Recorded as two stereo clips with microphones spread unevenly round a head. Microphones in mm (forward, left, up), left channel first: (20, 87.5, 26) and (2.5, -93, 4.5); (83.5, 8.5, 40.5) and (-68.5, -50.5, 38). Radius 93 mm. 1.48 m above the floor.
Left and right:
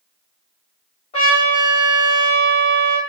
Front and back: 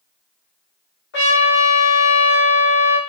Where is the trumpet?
25° left, 4 m.